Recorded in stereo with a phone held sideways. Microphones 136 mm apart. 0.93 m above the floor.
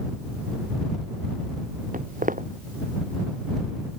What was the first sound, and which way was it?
Footsteps, 85° right.